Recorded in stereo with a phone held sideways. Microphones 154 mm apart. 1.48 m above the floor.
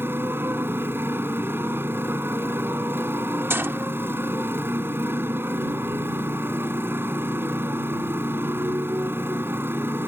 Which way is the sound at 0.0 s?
15° right (ahead or behind).